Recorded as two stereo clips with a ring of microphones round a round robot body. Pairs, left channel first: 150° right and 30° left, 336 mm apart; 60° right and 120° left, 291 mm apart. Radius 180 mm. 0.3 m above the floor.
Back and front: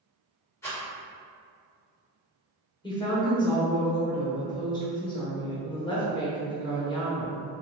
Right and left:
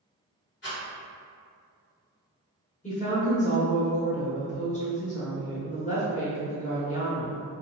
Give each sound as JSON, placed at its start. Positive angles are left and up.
{"t": 0.6, "sound": "a rattle", "azimuth_deg": -70, "distance_m": 1.8}
{"t": 2.8, "sound": "a woman speaking", "azimuth_deg": -90, "distance_m": 1.0}